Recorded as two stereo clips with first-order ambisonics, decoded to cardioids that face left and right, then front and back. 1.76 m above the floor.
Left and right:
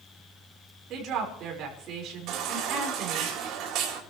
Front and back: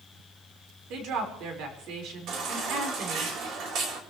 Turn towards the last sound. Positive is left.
turn(degrees=-135)